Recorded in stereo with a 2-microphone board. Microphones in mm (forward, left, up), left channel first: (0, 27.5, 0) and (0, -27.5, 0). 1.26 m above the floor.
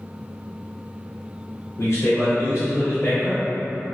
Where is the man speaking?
55° left (ahead or behind), 0.7 m.